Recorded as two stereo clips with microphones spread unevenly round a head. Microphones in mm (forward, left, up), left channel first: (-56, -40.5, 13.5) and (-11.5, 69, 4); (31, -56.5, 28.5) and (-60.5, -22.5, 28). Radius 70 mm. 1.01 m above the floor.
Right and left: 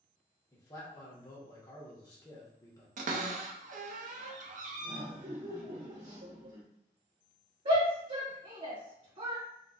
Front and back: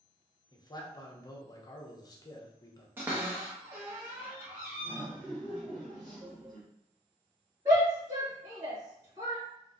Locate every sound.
0.5 s a man speaking: 50° right, 0.9 m
3.0 s a cupboard door: 85° left, 0.6 m
4.8 s laughter: 70° left, 1.6 m
7.7 s a shout: 95° left, 1.8 m